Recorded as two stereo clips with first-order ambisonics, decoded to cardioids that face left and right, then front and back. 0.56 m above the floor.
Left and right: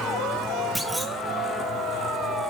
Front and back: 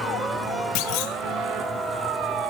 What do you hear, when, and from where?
0.8 s a clunk: 5° right, 1.2 m